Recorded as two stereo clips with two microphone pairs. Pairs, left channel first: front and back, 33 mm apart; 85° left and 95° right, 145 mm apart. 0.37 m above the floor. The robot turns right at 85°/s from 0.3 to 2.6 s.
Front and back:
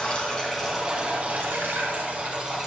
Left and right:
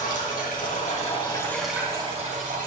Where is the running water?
65° left, 3 m; by 2.7 s 100° right, 3 m.